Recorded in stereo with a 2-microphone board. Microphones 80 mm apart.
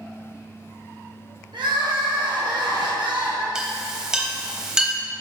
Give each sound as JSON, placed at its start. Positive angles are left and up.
{"t": 1.5, "sound": "crying", "side_deg": -75, "distance_m": 2.5}
{"t": 3.5, "sound": "a clink", "side_deg": -5, "distance_m": 1.0}